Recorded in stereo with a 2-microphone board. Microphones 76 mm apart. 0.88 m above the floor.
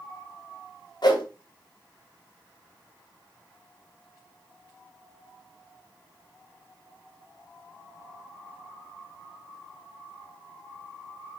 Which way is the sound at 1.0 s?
65° left (ahead or behind).